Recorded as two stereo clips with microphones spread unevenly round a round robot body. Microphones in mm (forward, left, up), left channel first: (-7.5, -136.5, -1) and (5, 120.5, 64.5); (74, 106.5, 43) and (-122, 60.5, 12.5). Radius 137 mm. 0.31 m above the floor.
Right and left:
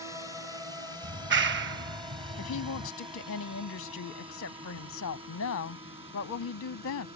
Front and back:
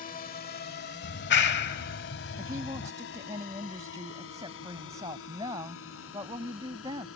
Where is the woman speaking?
95° right.